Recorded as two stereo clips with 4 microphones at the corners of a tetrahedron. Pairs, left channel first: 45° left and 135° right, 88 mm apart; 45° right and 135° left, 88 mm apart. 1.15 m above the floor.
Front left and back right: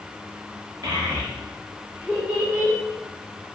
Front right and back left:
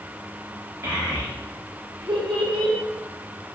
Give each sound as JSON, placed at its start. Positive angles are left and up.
{"t": 0.8, "sound": "a child speaking", "azimuth_deg": -170, "distance_m": 1.7}